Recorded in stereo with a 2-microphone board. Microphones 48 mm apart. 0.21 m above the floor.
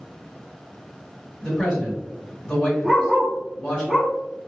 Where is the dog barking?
15° right (ahead or behind), 1.7 m.